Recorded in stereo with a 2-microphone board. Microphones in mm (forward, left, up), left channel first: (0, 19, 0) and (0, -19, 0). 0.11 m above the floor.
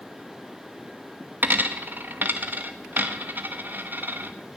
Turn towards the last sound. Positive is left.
turn(degrees=-55)  # may be behind; listen again after turning